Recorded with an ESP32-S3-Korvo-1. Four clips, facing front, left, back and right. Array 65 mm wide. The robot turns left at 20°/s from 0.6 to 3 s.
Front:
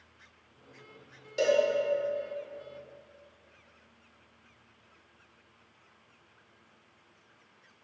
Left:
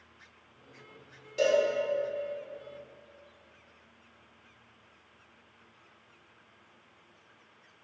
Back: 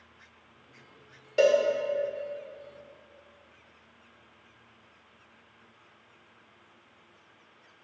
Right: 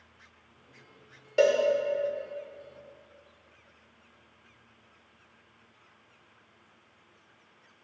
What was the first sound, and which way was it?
A cowbell, 120° right.